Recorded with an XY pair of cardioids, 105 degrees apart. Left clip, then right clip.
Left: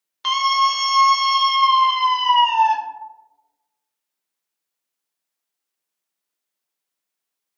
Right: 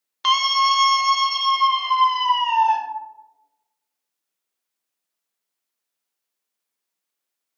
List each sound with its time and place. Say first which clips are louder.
0.2 s a scream: even; 25° right, 0.8 m; by 2.8 s 70° left, 1.3 m